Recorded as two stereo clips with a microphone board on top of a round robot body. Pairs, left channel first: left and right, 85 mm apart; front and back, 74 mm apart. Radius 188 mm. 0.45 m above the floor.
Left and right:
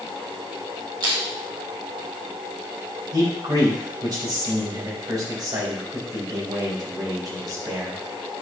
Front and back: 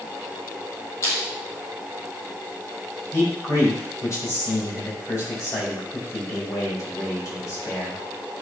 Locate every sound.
1.0 s crushing: 50° right, 3.5 m
3.1 s a man speaking: 50° right, 4.5 m